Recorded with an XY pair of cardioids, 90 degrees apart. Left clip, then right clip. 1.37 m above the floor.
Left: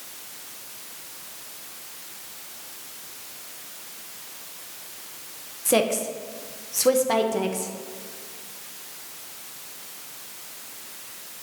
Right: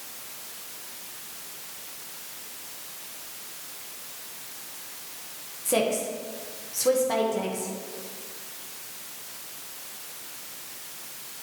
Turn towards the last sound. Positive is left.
turn(degrees=45)